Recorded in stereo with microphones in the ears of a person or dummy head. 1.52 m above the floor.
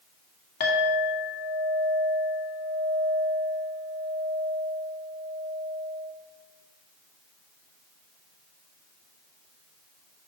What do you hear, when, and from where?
0.6 s a clink: 55° left (ahead or behind), 2.0 m